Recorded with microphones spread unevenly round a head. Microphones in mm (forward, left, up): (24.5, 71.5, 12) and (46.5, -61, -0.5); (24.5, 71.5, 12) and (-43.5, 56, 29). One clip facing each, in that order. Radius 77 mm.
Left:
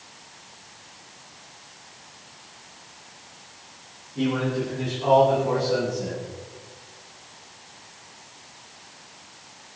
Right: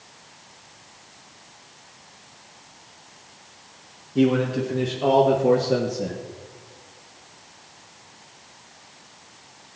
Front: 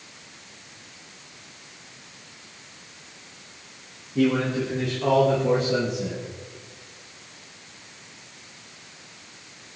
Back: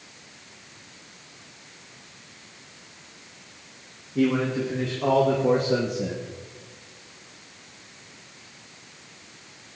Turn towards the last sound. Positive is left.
turn(degrees=-140)